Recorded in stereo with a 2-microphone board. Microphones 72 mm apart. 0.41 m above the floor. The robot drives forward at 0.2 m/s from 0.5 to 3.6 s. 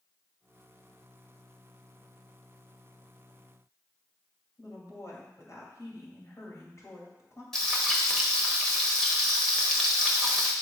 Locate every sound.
4.6 s a woman speaking: 45° left (ahead or behind), 2 m
7.5 s frying: 5° left (ahead or behind), 1.3 m